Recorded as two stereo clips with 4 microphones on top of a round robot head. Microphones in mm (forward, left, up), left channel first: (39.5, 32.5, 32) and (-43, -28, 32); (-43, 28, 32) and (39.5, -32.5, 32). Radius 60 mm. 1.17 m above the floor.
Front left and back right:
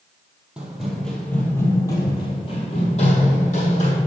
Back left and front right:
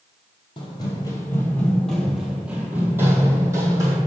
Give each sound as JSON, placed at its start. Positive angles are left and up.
{"t": 0.6, "sound": "running footsteps", "azimuth_deg": 140, "distance_m": 1.3}